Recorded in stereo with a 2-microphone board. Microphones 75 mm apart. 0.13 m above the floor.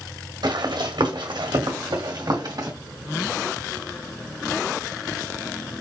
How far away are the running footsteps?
About 1.6 m.